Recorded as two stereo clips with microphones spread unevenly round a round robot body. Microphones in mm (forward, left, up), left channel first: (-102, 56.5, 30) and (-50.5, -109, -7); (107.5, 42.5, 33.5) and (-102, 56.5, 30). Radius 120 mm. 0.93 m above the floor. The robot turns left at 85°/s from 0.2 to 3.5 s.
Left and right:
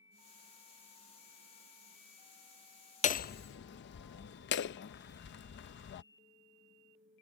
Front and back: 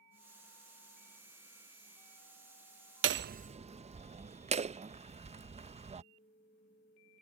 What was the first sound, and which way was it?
Hammering, 160° left.